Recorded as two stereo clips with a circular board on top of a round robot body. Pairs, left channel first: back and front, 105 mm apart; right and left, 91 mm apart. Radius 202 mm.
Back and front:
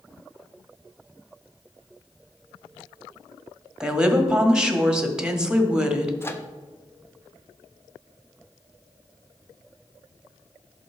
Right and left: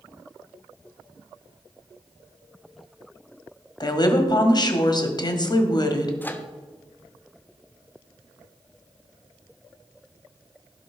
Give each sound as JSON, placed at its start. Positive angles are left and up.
{"t": 3.8, "sound": "a woman speaking", "azimuth_deg": -80, "distance_m": 1.7}
{"t": 6.2, "sound": "a microwave", "azimuth_deg": -140, "distance_m": 1.2}